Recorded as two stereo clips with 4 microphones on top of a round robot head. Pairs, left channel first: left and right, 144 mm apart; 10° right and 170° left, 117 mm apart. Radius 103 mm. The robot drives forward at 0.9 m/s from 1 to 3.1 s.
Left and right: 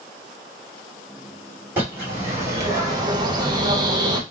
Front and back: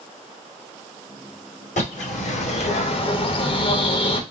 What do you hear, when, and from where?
1.8 s a bird: 15° right, 2.0 m; by 4.2 s 35° right, 1.0 m